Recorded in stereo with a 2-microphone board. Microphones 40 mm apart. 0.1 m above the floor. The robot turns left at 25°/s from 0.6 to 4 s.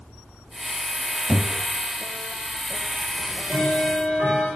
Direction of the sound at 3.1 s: 50° right (ahead or behind).